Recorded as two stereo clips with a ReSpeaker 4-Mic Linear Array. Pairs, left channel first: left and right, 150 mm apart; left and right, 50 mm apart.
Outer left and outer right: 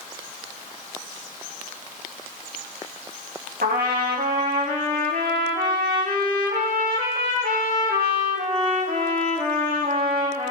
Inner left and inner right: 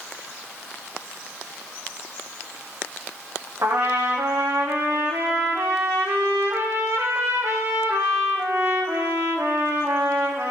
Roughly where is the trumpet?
Right.